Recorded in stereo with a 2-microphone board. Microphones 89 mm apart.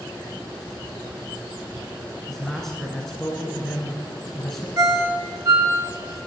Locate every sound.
2.3 s a man speaking: 5° left (ahead or behind), 1.1 m
4.8 s a ringtone: 40° right (ahead or behind), 0.8 m